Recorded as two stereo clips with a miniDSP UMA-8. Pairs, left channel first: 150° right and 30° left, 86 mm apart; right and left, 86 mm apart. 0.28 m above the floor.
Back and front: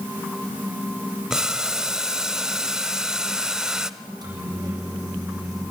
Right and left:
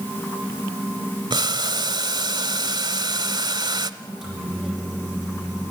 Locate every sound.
1.3 s boiling: 110° left, 0.8 m
4.0 s a microwave: straight ahead, 8 m